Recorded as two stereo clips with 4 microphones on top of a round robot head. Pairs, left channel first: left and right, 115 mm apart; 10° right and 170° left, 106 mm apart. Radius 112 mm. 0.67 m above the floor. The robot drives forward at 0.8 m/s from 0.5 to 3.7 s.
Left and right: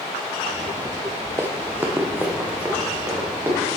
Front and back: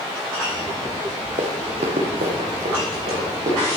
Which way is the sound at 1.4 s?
155° right.